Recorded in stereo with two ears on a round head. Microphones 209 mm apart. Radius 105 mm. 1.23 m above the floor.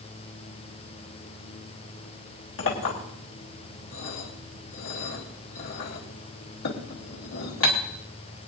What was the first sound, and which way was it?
A clink, 60° left (ahead or behind).